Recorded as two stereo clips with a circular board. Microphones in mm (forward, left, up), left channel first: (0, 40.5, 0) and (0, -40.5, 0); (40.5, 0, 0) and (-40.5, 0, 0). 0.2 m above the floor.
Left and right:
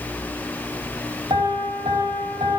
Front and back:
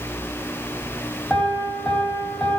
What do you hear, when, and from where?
1.3 s a piano: 80° right, 1.5 m